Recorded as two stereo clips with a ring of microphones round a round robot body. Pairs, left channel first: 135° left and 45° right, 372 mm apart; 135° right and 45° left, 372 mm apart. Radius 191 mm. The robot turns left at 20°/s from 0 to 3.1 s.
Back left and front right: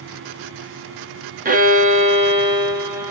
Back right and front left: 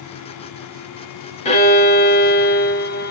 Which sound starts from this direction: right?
A violin, at 1.4 s.